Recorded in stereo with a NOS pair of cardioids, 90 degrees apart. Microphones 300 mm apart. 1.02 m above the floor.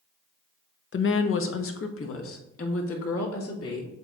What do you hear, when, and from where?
0.9 s a woman speaking: 45° left, 0.8 m; by 4.1 s 50° left, 2.5 m